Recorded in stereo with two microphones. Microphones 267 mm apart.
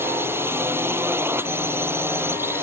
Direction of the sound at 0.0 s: 10° right (ahead or behind).